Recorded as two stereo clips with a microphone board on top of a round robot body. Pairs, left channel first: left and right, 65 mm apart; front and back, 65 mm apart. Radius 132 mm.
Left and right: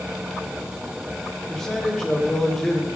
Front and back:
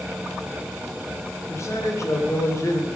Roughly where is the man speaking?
Ahead.